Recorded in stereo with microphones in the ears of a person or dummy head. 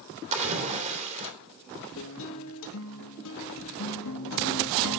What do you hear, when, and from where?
0.3 s a splash: 35° right (ahead or behind), 2.5 m
2.0 s a guitar: 70° left (ahead or behind), 1.4 m